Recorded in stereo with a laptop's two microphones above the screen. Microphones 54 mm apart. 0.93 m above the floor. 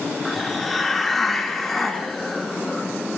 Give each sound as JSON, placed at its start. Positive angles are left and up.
{"t": 0.2, "sound": "a hiss", "side_deg": 0, "distance_m": 1.3}